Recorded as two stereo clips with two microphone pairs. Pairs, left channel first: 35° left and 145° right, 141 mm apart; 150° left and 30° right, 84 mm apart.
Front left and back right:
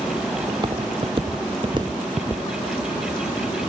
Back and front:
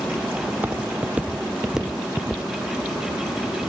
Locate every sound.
0.5 s footsteps: 95° right, 1.6 m; by 2.4 s 135° right, 0.9 m